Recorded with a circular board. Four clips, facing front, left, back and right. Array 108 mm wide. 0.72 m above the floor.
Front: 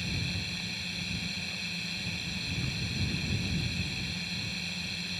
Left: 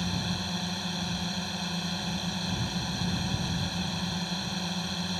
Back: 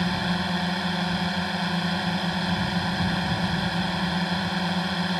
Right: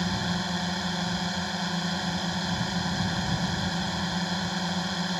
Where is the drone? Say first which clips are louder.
Right 4 dB, back 13 dB; 165° right.